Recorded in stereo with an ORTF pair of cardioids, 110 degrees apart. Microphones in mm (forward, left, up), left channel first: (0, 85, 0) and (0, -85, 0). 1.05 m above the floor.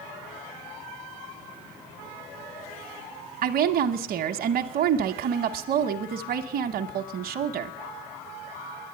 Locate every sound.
3.4 s a woman speaking: 60° right, 0.9 m